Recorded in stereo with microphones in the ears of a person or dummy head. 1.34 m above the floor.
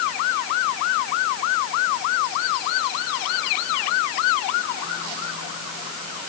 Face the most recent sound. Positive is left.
No sound to turn to.